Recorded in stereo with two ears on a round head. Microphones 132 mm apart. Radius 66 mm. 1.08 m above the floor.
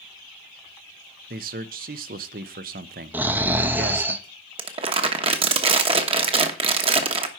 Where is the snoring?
15° right (ahead or behind), 0.6 m.